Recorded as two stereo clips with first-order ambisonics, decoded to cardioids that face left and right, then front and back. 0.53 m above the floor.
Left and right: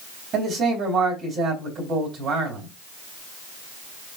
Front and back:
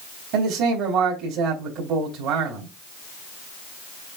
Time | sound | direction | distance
0.3 | a man speaking | 145° right | 3 m